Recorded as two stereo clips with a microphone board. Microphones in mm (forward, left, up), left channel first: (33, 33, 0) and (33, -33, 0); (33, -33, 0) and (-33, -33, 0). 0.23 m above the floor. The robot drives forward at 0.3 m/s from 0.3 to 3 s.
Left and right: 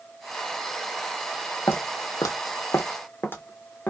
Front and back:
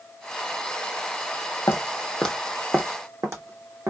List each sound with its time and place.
1.7 s footsteps: 40° left, 0.7 m; by 3.9 s 155° left, 1.1 m